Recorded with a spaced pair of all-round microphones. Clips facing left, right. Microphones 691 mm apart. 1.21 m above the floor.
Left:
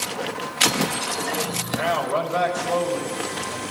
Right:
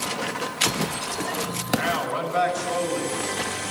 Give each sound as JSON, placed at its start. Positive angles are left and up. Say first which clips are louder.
{"t": 1.7, "sound": "a man speaking", "louder": "left 1 dB", "side_deg": 75, "distance_m": 6.5}